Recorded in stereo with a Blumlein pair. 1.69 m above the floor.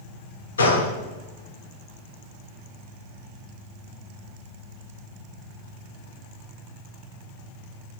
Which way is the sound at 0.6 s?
70° left.